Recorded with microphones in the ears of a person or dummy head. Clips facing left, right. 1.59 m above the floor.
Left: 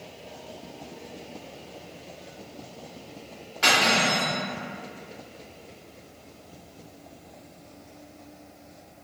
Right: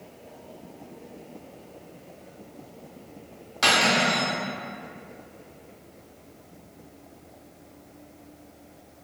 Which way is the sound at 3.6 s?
60° right (ahead or behind).